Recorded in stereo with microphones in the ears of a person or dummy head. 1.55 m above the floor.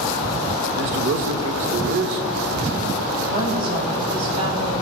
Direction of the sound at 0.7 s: 50° right (ahead or behind).